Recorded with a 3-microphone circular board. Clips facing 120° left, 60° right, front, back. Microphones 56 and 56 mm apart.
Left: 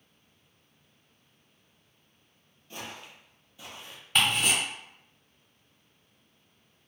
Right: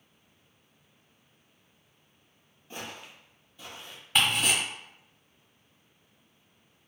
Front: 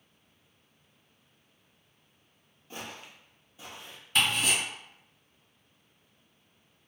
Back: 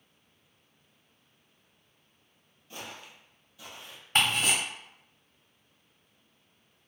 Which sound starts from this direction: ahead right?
Footsteps, at 2.7 s.